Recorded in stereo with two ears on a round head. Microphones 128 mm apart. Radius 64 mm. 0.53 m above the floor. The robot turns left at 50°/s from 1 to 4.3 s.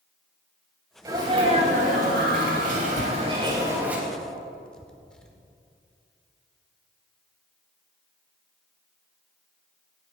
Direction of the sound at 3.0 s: 55° left (ahead or behind).